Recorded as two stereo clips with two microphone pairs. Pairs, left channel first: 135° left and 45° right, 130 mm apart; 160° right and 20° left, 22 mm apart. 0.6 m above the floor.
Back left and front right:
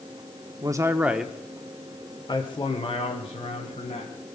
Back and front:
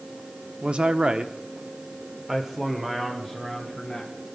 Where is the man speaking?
10° left, 1.0 m; by 4.1 s 105° left, 2.5 m.